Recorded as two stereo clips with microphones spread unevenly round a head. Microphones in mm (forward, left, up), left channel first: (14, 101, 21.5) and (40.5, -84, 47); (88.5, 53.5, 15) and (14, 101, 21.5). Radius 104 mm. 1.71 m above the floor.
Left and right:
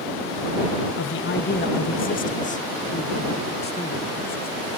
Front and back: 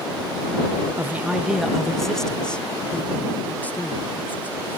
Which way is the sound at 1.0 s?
80° left.